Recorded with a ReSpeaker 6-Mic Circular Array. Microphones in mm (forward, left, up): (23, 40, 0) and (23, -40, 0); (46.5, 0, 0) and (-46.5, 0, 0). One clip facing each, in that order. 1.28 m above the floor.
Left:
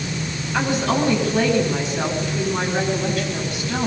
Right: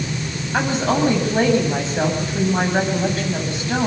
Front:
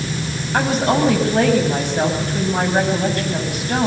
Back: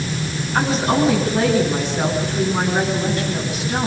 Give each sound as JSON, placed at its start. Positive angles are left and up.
{"t": 0.5, "sound": "a woman speaking", "azimuth_deg": -35, "distance_m": 9.5}